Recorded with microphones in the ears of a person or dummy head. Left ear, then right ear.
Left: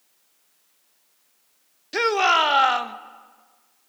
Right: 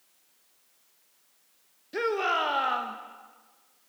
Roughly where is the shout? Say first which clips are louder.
Left 8 dB; left.